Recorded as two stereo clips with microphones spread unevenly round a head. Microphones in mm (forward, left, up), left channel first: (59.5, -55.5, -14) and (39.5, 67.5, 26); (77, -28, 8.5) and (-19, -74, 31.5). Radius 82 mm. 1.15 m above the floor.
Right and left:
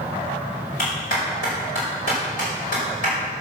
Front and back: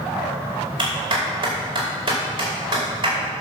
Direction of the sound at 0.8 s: 115° right.